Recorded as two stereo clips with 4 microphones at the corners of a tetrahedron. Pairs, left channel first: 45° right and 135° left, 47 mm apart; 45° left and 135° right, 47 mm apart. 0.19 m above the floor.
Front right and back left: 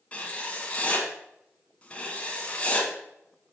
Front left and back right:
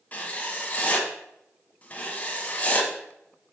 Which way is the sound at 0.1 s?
5° left.